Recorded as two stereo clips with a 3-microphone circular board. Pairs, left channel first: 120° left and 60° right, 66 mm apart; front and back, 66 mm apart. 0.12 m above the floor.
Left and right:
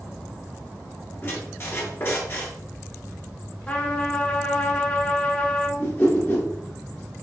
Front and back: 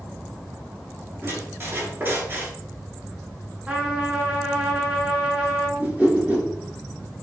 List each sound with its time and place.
1.2 s a squeak: 145° left, 1.4 m
3.7 s a trumpet: 125° left, 1.1 m
5.8 s a whoosh: 135° left, 1.4 m